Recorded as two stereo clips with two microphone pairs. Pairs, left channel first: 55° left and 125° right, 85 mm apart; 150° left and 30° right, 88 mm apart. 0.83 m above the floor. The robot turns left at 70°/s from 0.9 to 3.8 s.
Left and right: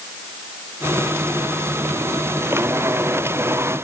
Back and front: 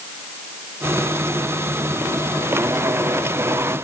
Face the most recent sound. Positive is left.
No sound to turn to.